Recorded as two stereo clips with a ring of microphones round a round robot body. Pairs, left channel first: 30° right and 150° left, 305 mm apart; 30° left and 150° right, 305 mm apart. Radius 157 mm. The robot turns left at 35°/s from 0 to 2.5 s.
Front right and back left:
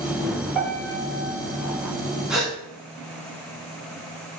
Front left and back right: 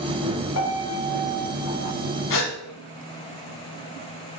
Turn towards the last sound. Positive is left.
turn(degrees=55)